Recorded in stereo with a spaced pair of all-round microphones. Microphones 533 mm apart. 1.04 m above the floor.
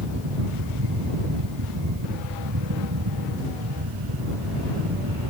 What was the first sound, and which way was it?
A fan, 40° right (ahead or behind).